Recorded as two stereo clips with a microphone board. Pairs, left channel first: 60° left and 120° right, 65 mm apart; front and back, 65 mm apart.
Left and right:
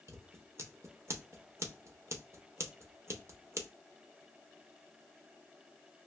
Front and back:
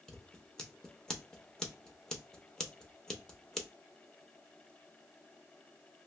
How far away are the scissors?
About 0.5 m.